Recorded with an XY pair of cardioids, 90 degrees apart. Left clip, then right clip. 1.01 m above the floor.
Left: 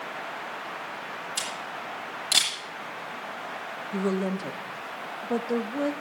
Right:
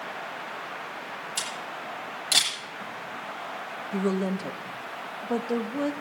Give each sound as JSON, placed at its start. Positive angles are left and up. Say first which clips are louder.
{"t": 1.4, "sound": "a camera shutter", "louder": "even", "azimuth_deg": 0, "distance_m": 7.5}
{"t": 3.9, "sound": "a woman speaking", "louder": "even", "azimuth_deg": -10, "distance_m": 1.1}